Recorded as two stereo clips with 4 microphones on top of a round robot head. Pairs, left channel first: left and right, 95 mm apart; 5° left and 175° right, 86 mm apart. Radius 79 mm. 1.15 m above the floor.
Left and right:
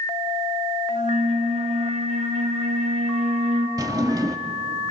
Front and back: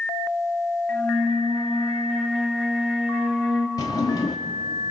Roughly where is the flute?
Right.